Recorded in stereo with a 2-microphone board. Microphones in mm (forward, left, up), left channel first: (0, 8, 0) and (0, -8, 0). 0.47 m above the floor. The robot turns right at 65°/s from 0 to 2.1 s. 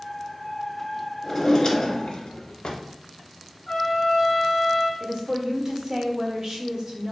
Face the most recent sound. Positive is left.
turn(degrees=-40)  # may be behind; listen again after turning